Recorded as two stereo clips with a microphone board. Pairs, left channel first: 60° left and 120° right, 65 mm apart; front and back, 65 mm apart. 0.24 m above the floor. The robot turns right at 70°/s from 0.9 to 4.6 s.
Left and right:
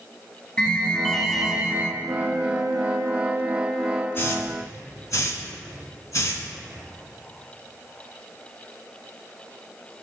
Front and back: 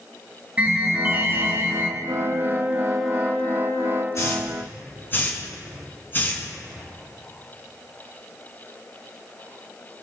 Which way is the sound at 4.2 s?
20° left.